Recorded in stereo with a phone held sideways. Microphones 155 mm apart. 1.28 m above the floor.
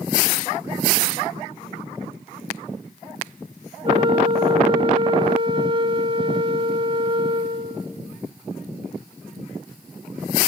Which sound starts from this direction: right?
A flute, at 3.8 s.